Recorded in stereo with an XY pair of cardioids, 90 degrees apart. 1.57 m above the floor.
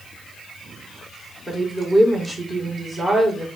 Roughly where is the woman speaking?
Ahead right.